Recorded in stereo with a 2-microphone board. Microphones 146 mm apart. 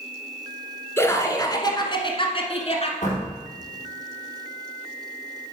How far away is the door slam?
About 4 m.